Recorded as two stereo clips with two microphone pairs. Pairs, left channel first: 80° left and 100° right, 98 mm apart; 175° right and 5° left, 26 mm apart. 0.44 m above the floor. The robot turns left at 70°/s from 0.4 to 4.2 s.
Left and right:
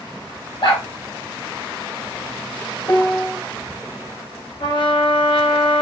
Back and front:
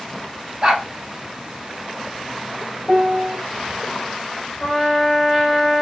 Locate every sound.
0.6 s a dog barking: 55° left, 5 m; by 0.8 s 35° left, 5 m
2.9 s a piano: 65° left, 1.1 m; by 3.4 s 30° left, 1.1 m
4.6 s a trumpet: 115° left, 6 m